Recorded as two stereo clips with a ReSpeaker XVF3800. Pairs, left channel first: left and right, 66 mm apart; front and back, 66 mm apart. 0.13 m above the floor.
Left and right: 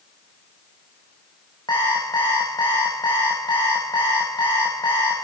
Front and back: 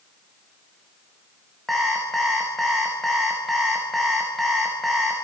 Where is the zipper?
No zipper in this recording.